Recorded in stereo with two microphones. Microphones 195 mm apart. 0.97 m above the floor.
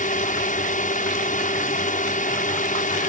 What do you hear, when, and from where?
0.0 s a drone: 40° left (ahead or behind)